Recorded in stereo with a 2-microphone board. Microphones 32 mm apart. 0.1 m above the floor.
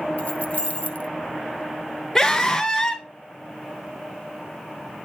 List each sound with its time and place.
0.2 s keys jangling: 45° left (ahead or behind), 1.2 m
2.1 s a scream: 15° left (ahead or behind), 1.4 m